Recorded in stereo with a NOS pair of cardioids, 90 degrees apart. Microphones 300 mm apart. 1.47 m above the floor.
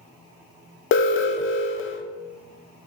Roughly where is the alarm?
Ahead left.